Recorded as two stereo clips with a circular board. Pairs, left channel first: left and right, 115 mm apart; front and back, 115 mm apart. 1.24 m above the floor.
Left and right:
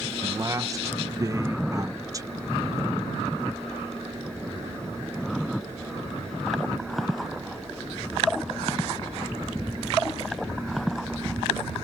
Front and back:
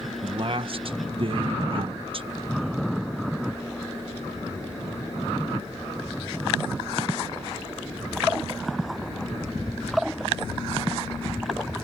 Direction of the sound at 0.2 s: 150° right.